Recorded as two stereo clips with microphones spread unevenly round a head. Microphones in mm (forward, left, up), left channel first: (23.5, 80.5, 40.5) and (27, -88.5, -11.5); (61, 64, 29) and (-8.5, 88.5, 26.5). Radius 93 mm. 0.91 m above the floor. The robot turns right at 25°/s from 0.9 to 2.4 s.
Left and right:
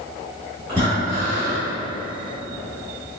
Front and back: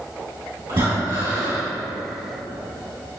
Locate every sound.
0.7 s breathing: 170° right, 2.0 m; by 1.7 s 155° right, 2.0 m